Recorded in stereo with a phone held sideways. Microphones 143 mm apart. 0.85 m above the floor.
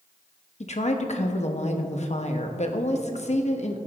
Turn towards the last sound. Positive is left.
turn(degrees=50)  # may be behind; listen again after turning